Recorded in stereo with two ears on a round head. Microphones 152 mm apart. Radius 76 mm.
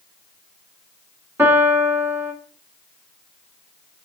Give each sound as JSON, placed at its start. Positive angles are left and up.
{"t": 1.4, "sound": "a piano", "side_deg": -10, "distance_m": 1.5}